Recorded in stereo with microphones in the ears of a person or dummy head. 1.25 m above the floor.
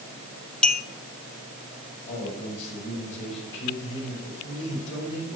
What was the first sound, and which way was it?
A clink, 5° left (ahead or behind).